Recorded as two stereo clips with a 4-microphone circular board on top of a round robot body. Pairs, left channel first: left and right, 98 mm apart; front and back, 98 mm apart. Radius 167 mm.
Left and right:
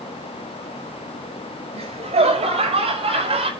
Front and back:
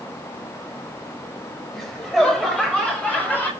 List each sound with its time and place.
1.7 s laughter: 85° right, 5.5 m; by 3.5 s 75° right, 4.5 m